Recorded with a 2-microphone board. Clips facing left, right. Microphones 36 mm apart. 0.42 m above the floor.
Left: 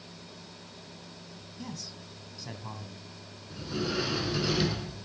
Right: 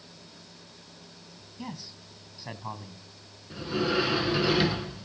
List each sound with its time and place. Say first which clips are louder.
1.6 s a man speaking: right 2 dB; 20° right (ahead or behind), 3 m
3.5 s a sliding door: right 5 dB; 25° right (ahead or behind), 1.5 m